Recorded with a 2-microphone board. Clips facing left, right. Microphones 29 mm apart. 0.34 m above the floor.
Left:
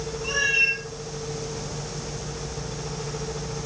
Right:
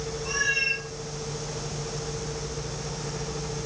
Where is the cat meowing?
55° left (ahead or behind), 5.5 m.